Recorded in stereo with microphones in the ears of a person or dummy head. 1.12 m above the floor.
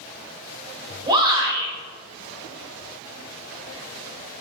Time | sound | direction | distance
1.1 | a shout | 20° right (ahead or behind) | 5.5 m